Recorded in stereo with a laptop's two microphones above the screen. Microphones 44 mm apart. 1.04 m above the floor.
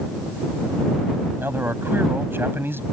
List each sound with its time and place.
1.4 s a man speaking: 55° right (ahead or behind)